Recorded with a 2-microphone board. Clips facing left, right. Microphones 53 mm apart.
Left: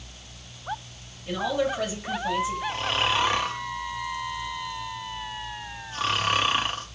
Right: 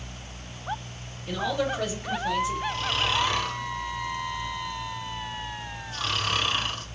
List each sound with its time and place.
1.3 s a man speaking: 10° left (ahead or behind), 2 m
2.7 s snoring: 30° left (ahead or behind), 0.8 m